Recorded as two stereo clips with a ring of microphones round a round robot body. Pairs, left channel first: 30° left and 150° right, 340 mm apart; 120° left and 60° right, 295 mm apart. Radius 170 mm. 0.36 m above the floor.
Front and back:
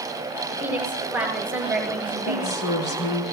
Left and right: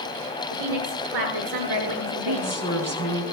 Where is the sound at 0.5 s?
65° right, 5.5 m.